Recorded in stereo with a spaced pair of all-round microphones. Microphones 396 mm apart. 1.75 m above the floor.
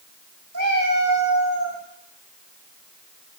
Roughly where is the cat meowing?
Right.